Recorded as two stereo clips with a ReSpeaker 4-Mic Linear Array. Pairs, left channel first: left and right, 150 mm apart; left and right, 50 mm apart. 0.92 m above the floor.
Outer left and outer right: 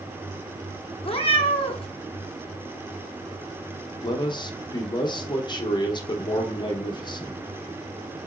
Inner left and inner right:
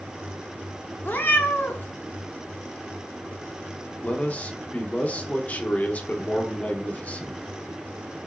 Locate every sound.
1.0 s a cat meowing: 40° left (ahead or behind), 0.5 m
4.0 s a man speaking: 30° left (ahead or behind), 0.6 m